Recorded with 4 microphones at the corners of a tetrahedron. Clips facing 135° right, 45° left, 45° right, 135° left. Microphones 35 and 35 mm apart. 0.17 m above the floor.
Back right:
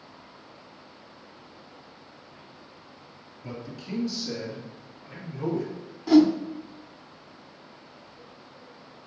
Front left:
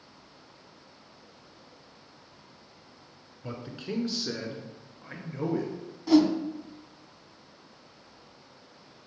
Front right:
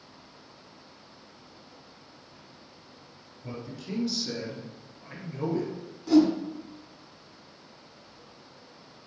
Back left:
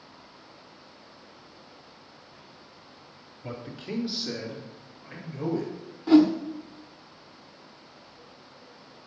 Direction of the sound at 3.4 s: 95° left.